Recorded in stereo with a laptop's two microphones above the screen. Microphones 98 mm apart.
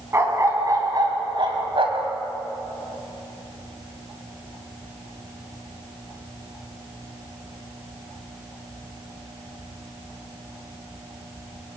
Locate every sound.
0.1 s a dog barking: 30° right (ahead or behind), 3.5 m; by 2.1 s 70° right (ahead or behind), 2.5 m